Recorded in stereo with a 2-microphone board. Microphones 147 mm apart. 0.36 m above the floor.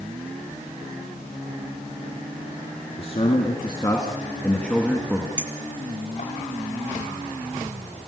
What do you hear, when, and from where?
3.0 s a man speaking: 45° left (ahead or behind), 4.5 m; by 5.3 s 5° right (ahead or behind), 3.5 m
5.4 s a clink: 55° left (ahead or behind), 4.5 m